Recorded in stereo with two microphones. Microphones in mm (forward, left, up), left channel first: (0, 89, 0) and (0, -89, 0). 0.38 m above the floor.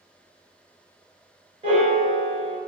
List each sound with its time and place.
1.6 s a piano: 35° right (ahead or behind), 1.4 m